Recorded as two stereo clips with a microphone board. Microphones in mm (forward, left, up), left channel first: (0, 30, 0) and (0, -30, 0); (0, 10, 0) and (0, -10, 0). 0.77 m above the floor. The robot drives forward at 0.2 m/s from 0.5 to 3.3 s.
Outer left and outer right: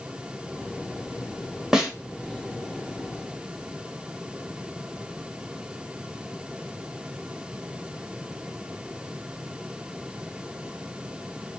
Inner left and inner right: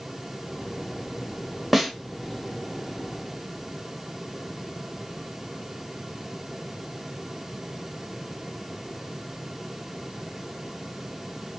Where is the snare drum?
10° right (ahead or behind), 0.5 m.